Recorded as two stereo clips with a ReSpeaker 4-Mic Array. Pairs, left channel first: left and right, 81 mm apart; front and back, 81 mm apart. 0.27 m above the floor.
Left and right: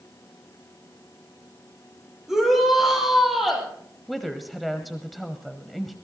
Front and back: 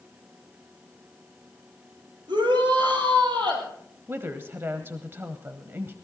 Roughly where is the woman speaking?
Behind.